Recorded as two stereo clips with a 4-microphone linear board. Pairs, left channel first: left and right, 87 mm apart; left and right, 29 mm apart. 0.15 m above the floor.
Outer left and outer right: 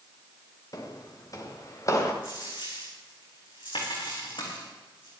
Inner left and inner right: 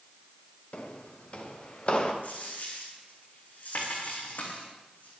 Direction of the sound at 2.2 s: 85° left.